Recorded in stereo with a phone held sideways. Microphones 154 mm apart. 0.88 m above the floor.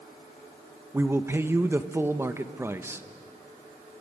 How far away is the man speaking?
About 0.9 m.